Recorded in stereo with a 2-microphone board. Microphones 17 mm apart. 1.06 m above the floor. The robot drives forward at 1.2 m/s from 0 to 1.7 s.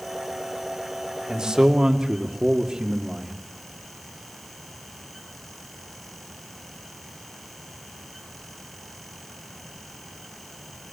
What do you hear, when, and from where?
1.3 s a man speaking: 45° right (ahead or behind), 2.5 m; by 3.4 s 50° right (ahead or behind), 2.5 m